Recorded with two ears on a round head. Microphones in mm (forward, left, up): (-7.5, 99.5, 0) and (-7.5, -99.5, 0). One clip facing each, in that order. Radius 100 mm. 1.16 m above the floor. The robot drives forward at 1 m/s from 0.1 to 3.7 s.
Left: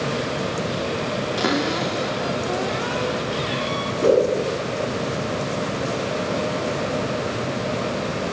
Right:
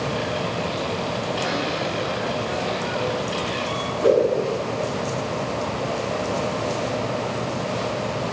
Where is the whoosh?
40° left (ahead or behind), 7.5 m.